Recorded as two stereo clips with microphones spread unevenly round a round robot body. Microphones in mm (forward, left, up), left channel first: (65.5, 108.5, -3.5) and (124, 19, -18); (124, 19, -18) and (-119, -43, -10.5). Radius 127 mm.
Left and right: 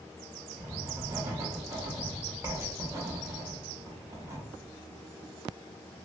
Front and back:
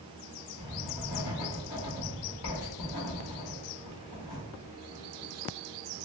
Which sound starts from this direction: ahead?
Writing, at 0.6 s.